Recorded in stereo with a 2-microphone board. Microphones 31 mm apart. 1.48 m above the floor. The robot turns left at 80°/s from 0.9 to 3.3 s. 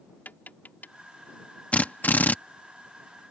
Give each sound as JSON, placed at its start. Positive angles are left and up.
{"t": 0.2, "sound": "tapping", "side_deg": 75}
{"t": 1.7, "sound": "a drill", "azimuth_deg": 125}